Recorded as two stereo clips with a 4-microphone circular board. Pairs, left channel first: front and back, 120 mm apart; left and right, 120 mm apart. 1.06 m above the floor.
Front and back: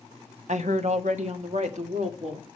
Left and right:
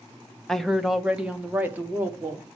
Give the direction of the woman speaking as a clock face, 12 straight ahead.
6 o'clock.